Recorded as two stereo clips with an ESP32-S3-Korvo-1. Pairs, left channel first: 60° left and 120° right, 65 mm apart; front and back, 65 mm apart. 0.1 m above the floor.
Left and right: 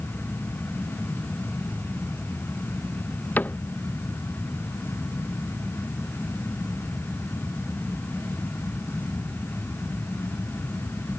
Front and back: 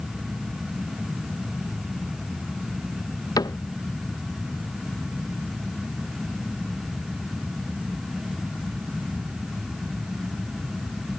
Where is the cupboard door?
5° right.